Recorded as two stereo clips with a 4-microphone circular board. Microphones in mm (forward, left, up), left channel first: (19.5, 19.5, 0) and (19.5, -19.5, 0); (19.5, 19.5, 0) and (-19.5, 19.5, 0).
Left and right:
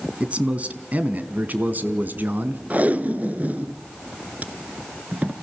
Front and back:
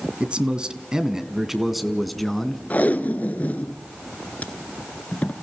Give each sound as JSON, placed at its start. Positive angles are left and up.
{"t": 0.2, "sound": "a man speaking", "azimuth_deg": -130, "distance_m": 1.8}
{"t": 2.7, "sound": "tape being pulled", "azimuth_deg": -45, "distance_m": 1.2}